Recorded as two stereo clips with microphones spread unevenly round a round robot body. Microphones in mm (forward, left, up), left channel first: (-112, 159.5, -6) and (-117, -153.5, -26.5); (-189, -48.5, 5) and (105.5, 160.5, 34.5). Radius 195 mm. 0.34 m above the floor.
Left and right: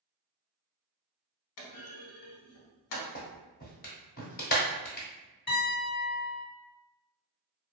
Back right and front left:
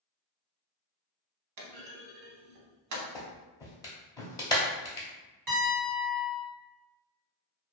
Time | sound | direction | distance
1.6 | a clunk | 80° left | 0.7 m
3.1 | a clap | 145° left | 0.9 m
5.5 | a piano | 30° left | 1.4 m